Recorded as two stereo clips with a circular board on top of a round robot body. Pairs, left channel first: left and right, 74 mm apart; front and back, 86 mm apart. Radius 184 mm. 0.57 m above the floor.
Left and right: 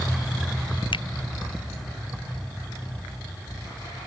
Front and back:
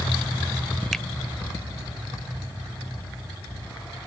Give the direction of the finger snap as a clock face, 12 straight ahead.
9 o'clock.